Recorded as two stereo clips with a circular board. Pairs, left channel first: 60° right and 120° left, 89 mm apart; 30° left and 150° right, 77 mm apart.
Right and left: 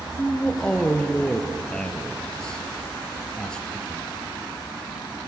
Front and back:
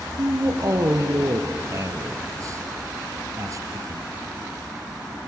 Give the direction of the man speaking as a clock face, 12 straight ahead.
5 o'clock.